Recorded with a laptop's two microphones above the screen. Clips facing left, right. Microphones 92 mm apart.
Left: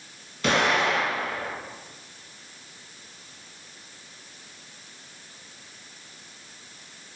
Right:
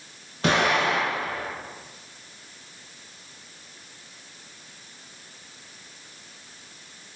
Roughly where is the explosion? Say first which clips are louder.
Right 1 dB; right.